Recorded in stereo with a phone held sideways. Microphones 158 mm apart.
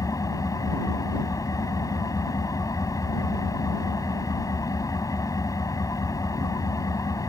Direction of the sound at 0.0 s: 20° left (ahead or behind).